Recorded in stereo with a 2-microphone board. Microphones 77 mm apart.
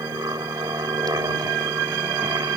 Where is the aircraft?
55° right (ahead or behind); by 2.6 s 60° right (ahead or behind).